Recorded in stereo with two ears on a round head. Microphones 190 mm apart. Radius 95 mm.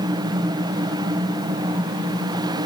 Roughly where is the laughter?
No laughter in this recording.